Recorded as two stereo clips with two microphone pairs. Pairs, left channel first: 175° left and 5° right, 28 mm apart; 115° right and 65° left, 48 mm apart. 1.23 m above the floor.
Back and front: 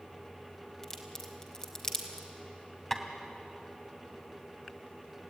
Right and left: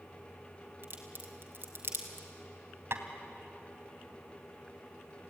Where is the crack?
110° left, 3 m.